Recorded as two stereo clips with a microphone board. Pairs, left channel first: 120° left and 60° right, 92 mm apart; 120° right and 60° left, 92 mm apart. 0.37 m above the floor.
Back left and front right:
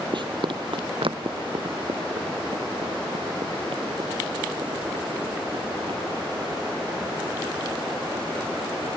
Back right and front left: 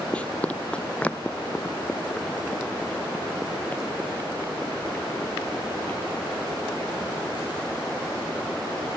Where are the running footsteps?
45° right.